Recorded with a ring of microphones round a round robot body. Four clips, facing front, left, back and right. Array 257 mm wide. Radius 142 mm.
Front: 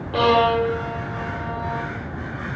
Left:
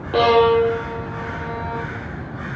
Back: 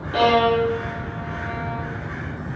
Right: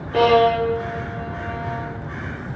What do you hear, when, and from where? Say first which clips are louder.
0.1 s a violin: left 1 dB, even; 95° left, 7.5 m